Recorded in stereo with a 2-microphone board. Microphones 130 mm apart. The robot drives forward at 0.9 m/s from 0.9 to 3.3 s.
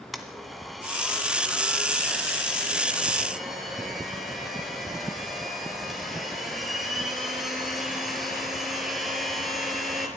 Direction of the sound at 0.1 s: Centre (ahead or behind).